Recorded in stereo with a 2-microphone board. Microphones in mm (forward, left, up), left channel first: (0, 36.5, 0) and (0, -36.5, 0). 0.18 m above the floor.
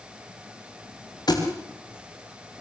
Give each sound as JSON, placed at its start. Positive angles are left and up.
{"t": 1.3, "sound": "a thud", "side_deg": 65, "distance_m": 5.5}